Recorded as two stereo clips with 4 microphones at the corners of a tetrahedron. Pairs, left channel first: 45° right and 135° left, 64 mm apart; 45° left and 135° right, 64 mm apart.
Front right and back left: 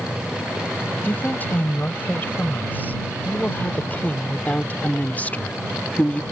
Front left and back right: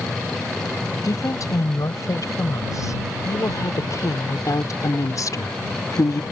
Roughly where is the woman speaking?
Ahead.